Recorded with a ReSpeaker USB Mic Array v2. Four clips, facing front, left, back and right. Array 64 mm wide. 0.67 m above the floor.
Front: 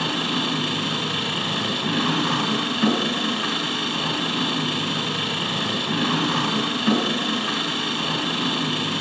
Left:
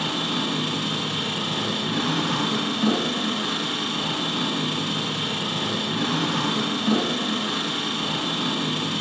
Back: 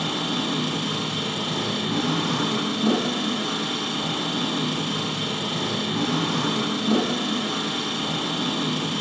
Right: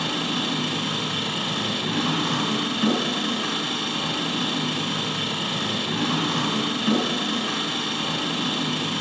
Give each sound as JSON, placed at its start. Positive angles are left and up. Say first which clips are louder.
{"t": 0.0, "sound": "an engine running", "louder": "even, front 2 dB", "azimuth_deg": 0, "distance_m": 4.0}